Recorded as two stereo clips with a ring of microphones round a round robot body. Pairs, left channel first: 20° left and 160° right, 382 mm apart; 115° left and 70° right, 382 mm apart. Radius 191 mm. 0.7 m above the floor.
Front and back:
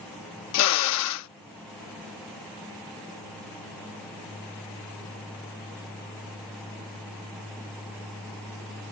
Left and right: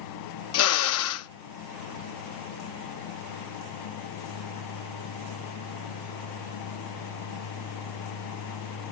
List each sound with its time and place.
0.5 s a drill: 65° left